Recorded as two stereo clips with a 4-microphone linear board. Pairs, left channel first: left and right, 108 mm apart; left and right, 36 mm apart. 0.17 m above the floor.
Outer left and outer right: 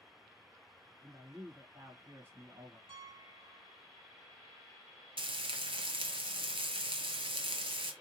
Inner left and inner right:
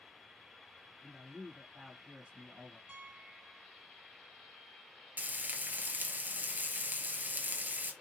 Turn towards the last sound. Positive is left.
turn(degrees=-55)  # may be behind; listen again after turning